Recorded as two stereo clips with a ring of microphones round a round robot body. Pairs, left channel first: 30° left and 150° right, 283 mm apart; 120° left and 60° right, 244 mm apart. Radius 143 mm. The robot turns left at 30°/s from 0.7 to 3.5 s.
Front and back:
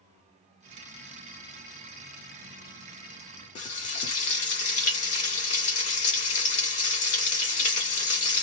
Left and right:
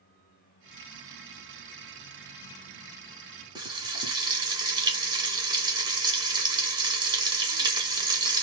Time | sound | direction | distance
3.5 | frying | 5° right | 1.3 m